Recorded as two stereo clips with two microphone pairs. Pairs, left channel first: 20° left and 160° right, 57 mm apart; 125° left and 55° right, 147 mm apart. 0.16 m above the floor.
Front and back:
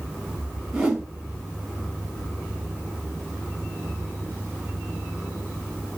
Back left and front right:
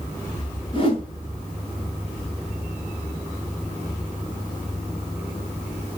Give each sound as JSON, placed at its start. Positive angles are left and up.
{"t": 0.7, "sound": "a whoosh", "azimuth_deg": 120, "distance_m": 1.7}